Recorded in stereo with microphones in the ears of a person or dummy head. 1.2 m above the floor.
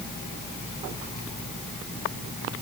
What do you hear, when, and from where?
Only background noise.